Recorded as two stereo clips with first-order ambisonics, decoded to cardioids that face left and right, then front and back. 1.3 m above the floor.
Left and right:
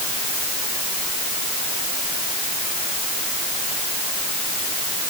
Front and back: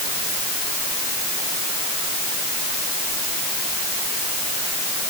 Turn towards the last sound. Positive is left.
No sound to turn to.